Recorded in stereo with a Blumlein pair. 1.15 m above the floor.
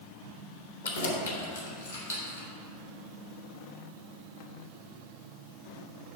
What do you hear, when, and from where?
0.8 s keys jangling: 65° left, 1.1 m; by 2.5 s 80° left, 2.5 m